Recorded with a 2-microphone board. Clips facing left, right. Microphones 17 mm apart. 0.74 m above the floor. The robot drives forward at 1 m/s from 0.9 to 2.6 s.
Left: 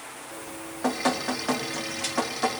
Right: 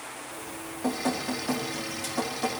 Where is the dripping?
55° left (ahead or behind), 1.6 m; by 2.6 s 35° left (ahead or behind), 2.5 m.